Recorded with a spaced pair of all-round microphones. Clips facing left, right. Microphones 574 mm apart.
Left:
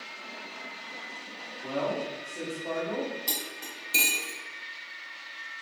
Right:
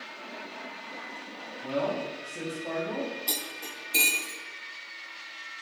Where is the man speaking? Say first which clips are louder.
Right 1 dB; 45° right (ahead or behind), 0.7 m.